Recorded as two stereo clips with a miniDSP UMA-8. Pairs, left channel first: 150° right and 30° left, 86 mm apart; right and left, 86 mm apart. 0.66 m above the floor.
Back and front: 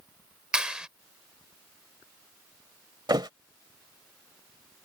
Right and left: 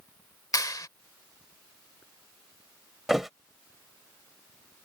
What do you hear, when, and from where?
0.5 s a clap: 50° right
3.1 s a thud: 5° left